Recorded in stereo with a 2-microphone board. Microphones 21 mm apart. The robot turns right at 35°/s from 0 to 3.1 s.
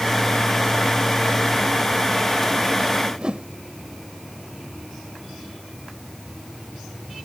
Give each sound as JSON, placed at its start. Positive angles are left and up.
{"t": 3.0, "sound": "a whoosh", "side_deg": -45}